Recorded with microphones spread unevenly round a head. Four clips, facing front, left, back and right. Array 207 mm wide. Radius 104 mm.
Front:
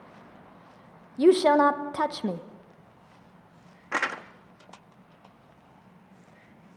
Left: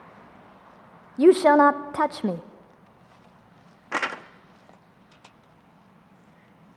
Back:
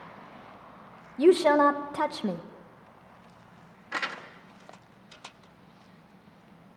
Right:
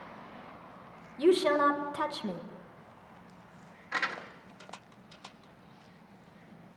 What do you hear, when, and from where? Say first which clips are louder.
1.2 s a woman speaking: left 9 dB, front 1 dB; 90° left, 0.9 m
3.9 s crumpling: left 6 dB, front 5 dB; 65° left, 0.9 m